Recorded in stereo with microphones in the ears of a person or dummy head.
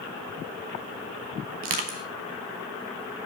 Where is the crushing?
45° right (ahead or behind), 1.0 m.